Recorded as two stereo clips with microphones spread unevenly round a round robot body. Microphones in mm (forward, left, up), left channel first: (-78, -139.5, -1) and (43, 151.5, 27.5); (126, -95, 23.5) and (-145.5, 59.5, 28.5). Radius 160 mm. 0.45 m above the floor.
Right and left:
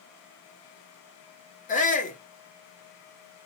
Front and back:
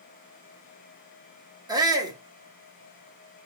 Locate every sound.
1.7 s a shout: 140° right, 1.5 m